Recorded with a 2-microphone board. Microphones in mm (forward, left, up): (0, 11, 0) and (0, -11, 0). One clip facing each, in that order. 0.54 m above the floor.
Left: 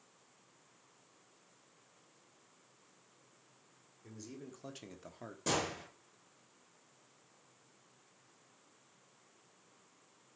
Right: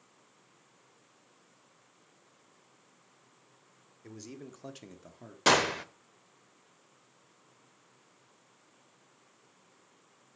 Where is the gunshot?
70° right (ahead or behind), 1.1 m.